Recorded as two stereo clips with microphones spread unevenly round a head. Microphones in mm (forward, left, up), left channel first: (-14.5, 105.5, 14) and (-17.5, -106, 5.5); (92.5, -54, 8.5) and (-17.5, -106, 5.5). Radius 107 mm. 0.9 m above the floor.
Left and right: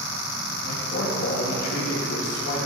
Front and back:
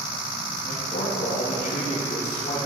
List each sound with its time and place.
0.6 s a man speaking: 40° left, 1.6 m